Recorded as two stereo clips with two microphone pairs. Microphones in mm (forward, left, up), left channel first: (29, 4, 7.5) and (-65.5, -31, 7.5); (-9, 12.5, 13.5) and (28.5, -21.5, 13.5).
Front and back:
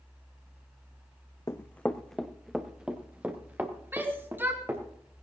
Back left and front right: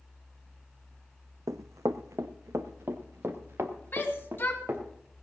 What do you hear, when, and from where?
1.5 s running footsteps: 45° right, 0.7 m; by 4.8 s 90° right, 2.5 m
3.9 s a shout: 145° left, 1.9 m